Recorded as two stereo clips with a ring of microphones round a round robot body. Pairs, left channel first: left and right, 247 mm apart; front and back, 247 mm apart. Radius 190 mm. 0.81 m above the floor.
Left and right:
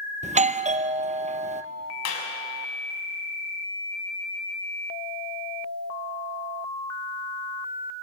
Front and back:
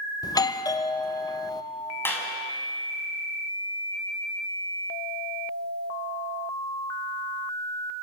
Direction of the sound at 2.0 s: 80° left.